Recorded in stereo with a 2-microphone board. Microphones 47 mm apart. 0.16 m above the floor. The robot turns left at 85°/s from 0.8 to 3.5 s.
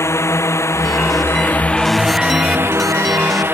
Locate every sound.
0.0 s a drone: 70° left (ahead or behind); by 3.5 s 50° right (ahead or behind)